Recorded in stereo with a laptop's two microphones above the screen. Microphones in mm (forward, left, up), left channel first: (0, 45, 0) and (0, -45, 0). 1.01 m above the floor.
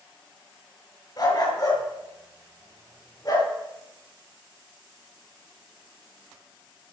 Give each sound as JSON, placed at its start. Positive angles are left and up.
{"t": 1.2, "sound": "a dog barking", "side_deg": 45, "distance_m": 5.5}